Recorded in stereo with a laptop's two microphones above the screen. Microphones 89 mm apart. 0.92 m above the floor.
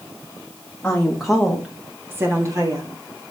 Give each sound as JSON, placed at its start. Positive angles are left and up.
{"t": 0.8, "sound": "a woman speaking", "side_deg": 15, "distance_m": 1.4}